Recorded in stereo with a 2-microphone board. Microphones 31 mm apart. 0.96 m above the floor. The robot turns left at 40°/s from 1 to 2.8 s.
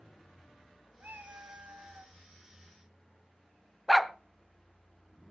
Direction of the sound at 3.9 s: Centre (ahead or behind).